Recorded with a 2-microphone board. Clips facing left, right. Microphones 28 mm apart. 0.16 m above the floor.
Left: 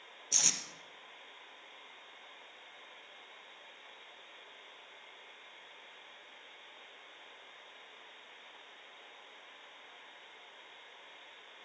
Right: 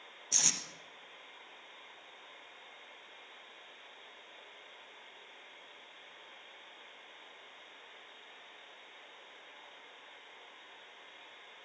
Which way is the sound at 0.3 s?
5° left (ahead or behind).